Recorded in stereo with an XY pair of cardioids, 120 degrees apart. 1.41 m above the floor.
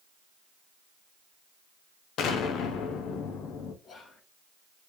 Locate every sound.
2.2 s an explosion: 70° left, 0.8 m
3.8 s whispering: 40° left, 1.4 m